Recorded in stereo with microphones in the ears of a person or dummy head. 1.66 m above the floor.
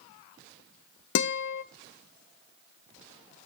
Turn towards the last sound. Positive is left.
turn(degrees=75)  # may be behind; listen again after turning